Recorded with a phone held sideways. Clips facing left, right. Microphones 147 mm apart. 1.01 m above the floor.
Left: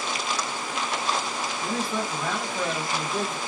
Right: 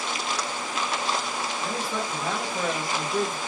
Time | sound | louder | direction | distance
1.6 | a man speaking | left 4 dB | 5° right (ahead or behind) | 1.6 m